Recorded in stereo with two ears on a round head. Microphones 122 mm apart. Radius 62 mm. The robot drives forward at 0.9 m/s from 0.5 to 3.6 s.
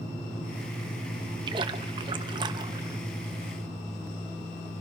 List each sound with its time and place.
1.5 s a splash: 35° right (ahead or behind), 1.1 m; by 3.0 s 25° right (ahead or behind), 1.4 m